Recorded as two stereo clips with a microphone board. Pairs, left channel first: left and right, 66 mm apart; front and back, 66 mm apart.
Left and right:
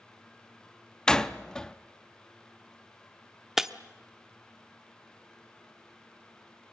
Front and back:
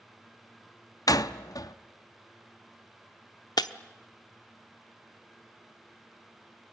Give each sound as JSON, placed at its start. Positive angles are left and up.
{"t": 1.1, "sound": "a door slam", "azimuth_deg": 10, "distance_m": 0.8}
{"t": 3.6, "sound": "breaking glass", "azimuth_deg": -5, "distance_m": 0.9}